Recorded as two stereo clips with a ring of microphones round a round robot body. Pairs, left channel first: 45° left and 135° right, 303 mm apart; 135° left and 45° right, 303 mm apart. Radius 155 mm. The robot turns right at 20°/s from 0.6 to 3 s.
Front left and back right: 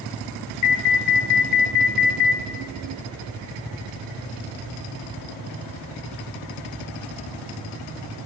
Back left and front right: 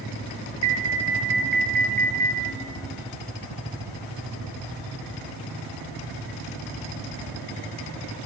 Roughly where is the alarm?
Ahead left.